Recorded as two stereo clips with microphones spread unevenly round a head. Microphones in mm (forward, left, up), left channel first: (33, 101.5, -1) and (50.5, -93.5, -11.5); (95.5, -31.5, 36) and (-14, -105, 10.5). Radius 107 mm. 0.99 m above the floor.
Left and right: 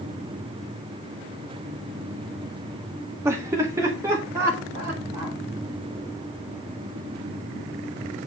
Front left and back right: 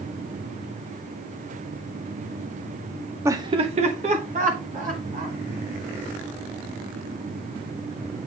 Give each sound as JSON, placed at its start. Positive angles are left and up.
{"t": 3.2, "sound": "laughter", "azimuth_deg": -145, "distance_m": 0.6}